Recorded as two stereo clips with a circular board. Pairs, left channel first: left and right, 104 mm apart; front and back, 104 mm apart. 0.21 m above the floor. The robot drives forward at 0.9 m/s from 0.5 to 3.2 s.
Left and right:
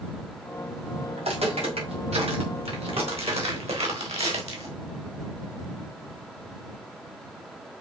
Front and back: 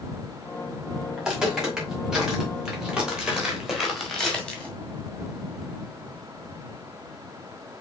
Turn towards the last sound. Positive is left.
turn(degrees=-75)